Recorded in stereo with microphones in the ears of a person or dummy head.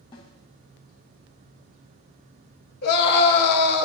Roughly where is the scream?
Left.